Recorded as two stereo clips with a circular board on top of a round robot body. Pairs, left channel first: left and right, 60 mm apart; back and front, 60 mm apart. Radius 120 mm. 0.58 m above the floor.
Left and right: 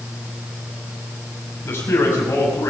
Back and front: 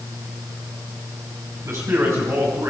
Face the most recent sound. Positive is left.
turn(degrees=40)